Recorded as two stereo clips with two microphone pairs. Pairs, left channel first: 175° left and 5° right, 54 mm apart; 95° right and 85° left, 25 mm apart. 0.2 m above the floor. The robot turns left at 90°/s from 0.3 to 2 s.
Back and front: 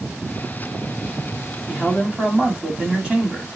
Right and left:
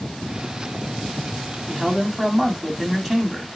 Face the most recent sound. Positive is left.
turn(degrees=20)